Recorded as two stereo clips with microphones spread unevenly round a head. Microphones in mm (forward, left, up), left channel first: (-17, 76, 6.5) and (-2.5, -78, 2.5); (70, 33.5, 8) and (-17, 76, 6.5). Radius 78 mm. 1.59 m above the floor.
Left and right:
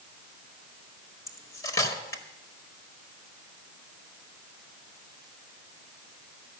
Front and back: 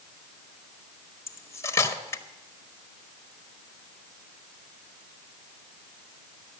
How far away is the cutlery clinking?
About 1.4 m.